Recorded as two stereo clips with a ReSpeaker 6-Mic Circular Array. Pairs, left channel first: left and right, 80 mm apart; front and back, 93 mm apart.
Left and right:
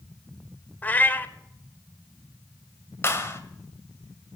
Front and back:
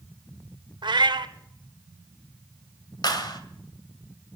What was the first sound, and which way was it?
A cat meowing, 155° left.